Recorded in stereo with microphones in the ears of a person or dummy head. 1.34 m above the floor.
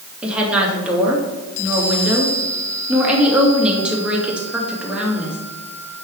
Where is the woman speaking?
5° right (ahead or behind), 2 m.